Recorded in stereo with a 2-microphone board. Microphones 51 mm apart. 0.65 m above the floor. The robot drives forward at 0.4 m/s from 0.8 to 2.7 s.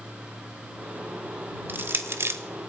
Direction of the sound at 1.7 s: 40° right (ahead or behind).